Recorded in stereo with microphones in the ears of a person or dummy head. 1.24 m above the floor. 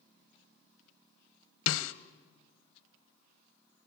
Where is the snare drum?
65° left (ahead or behind), 0.8 m.